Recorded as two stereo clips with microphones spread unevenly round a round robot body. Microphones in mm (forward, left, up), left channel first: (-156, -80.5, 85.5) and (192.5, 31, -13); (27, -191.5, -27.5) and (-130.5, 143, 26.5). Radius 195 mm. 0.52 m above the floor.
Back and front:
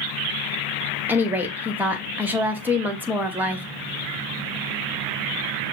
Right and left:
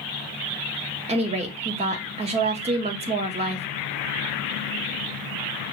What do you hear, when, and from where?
1.1 s a woman speaking: 45° left, 0.7 m